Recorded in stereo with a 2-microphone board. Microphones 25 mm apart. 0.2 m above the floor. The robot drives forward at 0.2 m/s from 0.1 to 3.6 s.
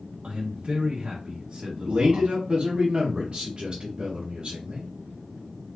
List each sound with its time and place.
0.2 s a man speaking: 40° right (ahead or behind), 1.3 m; by 2.3 s 35° right (ahead or behind), 1.4 m
1.9 s a man speaking: 35° right (ahead or behind), 1.2 m; by 4.9 s 30° right (ahead or behind), 1.3 m